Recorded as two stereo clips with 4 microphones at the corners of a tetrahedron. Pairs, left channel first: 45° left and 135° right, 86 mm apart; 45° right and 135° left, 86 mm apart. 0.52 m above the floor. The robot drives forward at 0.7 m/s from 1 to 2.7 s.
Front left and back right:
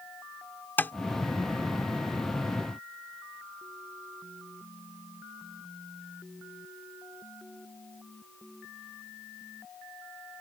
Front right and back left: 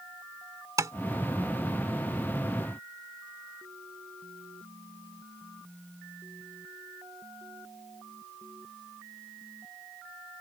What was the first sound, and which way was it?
Tapping, 105° left.